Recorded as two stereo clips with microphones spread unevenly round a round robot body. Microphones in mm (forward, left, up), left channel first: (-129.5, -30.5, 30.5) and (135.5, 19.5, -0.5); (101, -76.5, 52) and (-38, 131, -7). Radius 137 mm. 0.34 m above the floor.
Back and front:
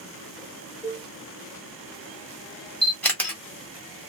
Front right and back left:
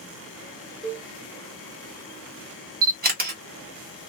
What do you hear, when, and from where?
0.8 s a cowbell: 95° left, 1.7 m
2.8 s a camera shutter: 100° left, 1.5 m